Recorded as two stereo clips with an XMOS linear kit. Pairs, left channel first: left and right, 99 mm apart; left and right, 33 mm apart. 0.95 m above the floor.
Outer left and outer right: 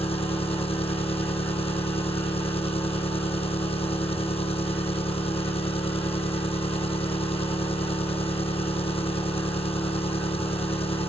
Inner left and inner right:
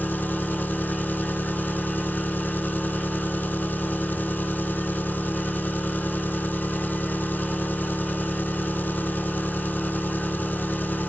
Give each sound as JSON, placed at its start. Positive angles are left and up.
{"t": 0.0, "sound": "an engine running", "side_deg": 70, "distance_m": 0.7}